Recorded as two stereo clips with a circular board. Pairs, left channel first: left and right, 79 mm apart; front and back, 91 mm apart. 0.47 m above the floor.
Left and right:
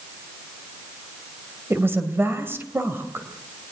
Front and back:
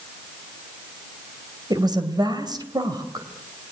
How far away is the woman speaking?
About 2.5 m.